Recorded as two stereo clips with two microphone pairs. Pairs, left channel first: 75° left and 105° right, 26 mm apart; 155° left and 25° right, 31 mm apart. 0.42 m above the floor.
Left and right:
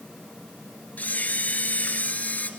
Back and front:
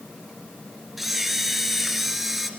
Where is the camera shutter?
55° left, 2 m.